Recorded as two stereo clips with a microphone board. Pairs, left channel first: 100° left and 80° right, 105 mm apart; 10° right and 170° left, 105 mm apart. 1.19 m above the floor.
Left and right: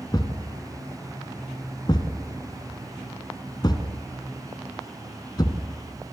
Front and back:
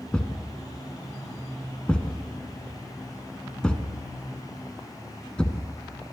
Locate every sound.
0.1 s a thud: 65° left, 1.6 m